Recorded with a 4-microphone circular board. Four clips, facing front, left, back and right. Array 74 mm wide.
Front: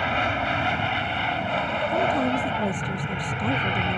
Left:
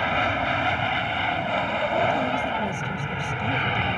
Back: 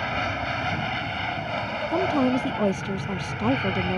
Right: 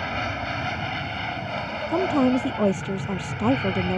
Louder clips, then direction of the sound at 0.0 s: Left 5 dB, front 3 dB; 65° left.